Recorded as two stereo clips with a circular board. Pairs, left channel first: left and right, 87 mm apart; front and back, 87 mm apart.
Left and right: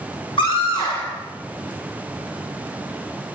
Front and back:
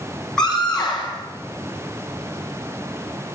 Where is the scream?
80° left, 8 m.